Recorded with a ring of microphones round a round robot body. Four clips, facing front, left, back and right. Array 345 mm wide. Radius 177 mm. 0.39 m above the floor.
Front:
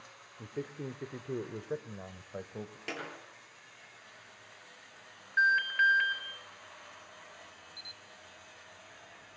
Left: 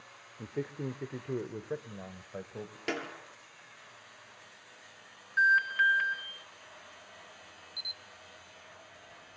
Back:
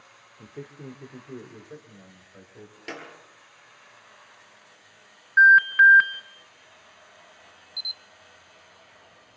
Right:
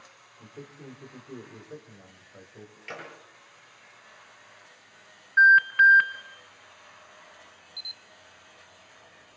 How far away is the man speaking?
About 1.7 m.